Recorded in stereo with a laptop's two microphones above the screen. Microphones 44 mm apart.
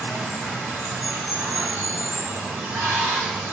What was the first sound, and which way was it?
Running water, 50° right (ahead or behind).